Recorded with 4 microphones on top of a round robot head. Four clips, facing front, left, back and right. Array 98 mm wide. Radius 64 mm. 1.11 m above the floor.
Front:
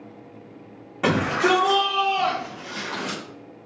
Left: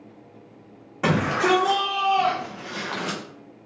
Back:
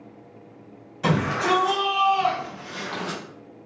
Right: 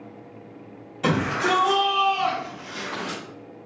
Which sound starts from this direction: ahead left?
A shout, at 1.0 s.